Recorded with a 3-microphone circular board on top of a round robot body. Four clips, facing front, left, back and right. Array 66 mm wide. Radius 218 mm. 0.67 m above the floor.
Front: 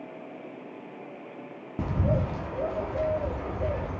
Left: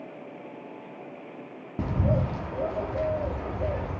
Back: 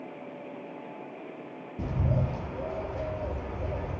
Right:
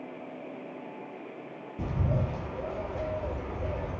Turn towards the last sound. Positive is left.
turn(degrees=50)